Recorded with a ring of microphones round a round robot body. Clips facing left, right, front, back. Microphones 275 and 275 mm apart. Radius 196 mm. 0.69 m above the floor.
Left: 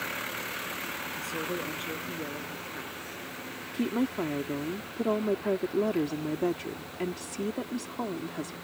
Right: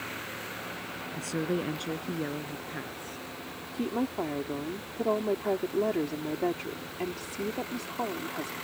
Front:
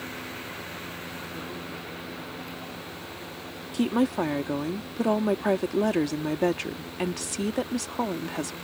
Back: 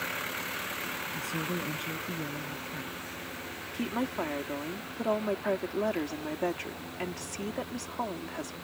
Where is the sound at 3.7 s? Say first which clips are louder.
Left 2 dB, front 9 dB; 20° left.